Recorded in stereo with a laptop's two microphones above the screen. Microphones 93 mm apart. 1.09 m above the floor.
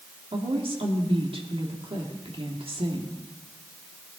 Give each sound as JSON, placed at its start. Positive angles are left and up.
{"t": 0.3, "sound": "a woman speaking", "side_deg": -70, "distance_m": 2.0}